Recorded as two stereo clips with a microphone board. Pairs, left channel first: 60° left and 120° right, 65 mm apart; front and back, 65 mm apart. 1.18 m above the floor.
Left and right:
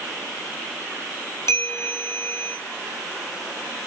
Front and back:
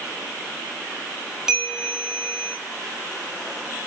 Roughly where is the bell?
Left.